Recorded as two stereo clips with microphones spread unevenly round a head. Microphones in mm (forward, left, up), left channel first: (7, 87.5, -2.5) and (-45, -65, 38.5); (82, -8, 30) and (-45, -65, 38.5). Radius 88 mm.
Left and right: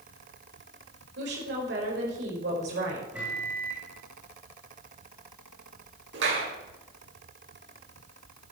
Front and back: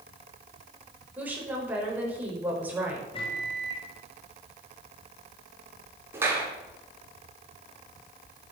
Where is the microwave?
30° right, 5 m.